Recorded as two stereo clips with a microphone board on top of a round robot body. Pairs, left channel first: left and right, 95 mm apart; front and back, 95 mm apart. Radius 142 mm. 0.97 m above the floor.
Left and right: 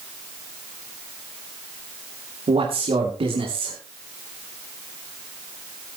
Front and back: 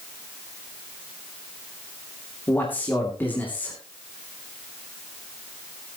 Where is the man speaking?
70° right, 2.5 m.